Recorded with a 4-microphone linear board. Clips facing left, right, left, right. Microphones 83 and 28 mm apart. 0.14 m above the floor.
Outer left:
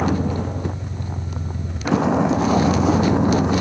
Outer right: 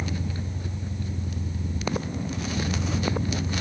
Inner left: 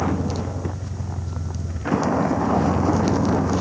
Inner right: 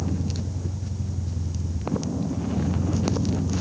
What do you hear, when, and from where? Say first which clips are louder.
0.0 s a vehicle: outer left 11 dB, inner left 6 dB; 65° left (ahead or behind)